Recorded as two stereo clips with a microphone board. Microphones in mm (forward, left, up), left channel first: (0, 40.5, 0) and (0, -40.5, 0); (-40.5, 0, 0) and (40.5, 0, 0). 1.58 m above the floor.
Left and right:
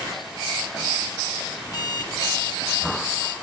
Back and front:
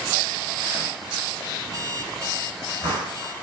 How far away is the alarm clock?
About 3 m.